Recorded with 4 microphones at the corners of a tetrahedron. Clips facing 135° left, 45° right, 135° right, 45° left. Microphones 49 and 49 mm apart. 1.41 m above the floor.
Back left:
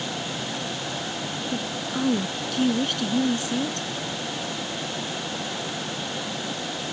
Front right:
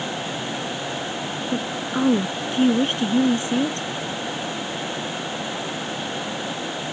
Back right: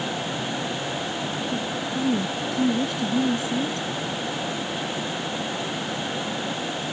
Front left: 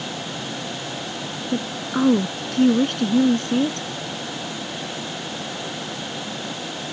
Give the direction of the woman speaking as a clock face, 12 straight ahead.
11 o'clock.